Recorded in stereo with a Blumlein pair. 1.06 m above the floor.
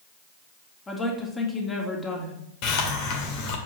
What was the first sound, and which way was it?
A woman speaking, 15° left.